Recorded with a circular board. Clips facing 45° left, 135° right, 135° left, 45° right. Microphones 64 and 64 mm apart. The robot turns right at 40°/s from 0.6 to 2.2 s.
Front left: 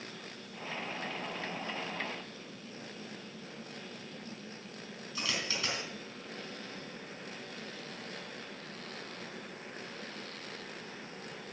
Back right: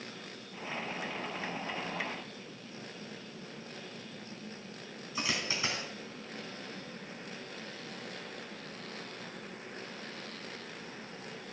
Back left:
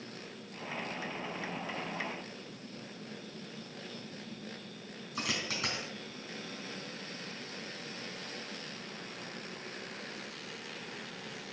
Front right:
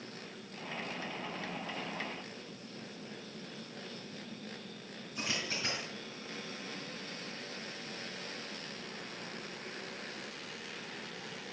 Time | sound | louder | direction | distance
5.2 | a dropped coin | back right 2 dB, back left 2 dB | 160° left | 4 m